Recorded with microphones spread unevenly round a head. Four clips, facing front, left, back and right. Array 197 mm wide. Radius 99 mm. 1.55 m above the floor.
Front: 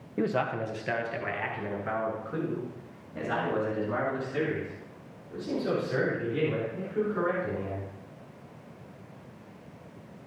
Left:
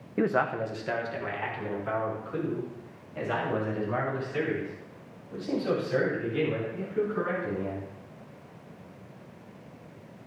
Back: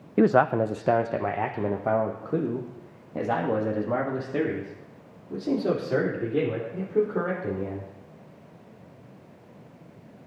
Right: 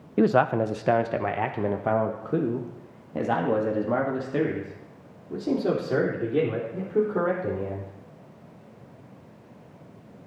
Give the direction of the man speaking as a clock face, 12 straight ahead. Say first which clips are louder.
Right 6 dB, back 9 dB; 5 o'clock.